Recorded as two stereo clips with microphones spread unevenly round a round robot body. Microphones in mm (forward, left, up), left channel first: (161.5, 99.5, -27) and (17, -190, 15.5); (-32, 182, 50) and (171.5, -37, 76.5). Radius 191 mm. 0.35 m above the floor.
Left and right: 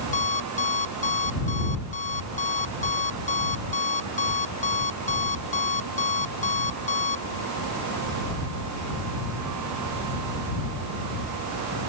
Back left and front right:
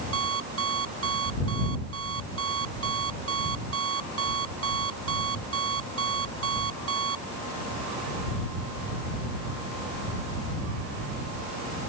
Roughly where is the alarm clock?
Ahead.